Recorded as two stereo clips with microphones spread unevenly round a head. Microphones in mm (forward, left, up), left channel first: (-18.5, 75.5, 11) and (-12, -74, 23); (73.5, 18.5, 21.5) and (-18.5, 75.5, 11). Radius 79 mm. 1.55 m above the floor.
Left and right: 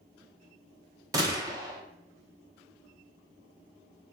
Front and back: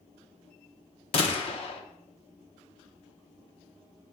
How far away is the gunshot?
About 0.9 m.